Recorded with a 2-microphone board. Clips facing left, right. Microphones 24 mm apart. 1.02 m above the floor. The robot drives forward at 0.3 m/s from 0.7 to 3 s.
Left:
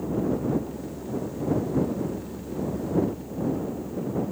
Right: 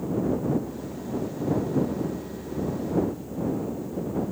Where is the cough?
I don't hear a cough.